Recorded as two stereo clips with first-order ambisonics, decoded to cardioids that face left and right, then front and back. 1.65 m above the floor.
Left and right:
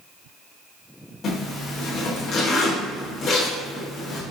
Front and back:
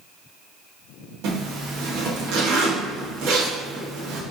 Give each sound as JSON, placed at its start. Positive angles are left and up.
{"t": 1.2, "sound": "a zipper", "azimuth_deg": 155, "distance_m": 1.3}